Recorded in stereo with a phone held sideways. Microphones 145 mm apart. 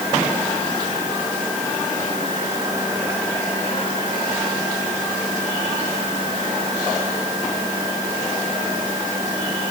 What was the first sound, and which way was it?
Only background noise.